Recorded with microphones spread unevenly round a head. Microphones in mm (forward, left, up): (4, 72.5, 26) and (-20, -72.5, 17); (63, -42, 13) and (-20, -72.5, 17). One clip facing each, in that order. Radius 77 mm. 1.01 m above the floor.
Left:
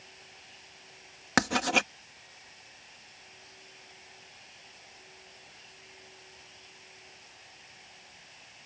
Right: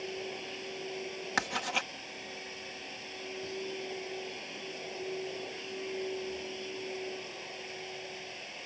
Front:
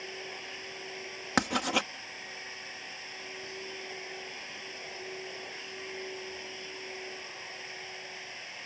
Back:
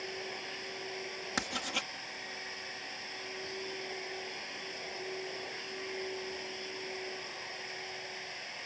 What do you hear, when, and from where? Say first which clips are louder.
0.0 s a machine running: right 18 dB, back 1 dB; 75° right
1.4 s writing: left 9 dB, front 10 dB; 60° left